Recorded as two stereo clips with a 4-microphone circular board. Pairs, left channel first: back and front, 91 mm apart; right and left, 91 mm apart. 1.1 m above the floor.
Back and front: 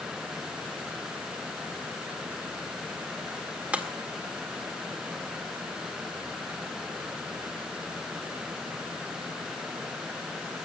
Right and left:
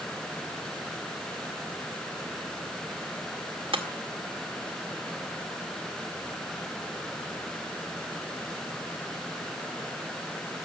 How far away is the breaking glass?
About 1.8 m.